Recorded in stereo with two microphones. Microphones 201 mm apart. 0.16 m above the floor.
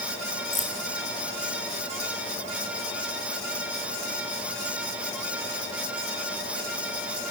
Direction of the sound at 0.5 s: 40° left (ahead or behind).